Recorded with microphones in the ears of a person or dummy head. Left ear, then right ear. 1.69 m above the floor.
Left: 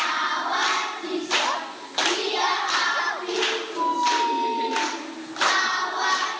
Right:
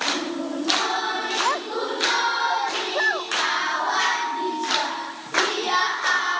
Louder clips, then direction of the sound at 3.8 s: Even; 30° left (ahead or behind).